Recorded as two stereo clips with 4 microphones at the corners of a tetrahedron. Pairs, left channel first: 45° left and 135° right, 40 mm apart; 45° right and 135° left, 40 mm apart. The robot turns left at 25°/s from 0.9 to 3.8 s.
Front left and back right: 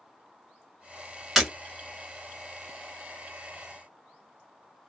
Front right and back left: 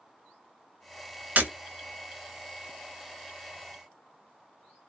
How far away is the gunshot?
No gunshot in this recording.